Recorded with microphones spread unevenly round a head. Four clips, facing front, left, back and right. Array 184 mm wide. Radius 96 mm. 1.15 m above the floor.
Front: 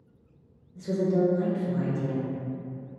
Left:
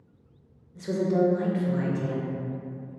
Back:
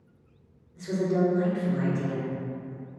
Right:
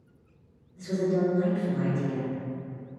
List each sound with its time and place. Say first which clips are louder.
0.8 s a woman speaking: left 2 dB, front 1 dB; 55° left, 0.6 m